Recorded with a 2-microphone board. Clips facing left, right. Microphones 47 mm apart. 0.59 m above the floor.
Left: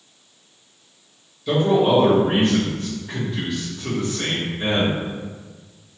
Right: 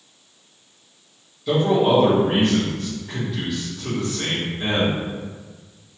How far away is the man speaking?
About 1.4 m.